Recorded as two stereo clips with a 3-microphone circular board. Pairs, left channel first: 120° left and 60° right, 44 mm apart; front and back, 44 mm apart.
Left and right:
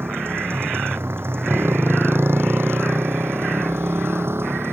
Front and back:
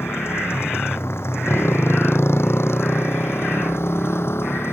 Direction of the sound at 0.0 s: 30° right.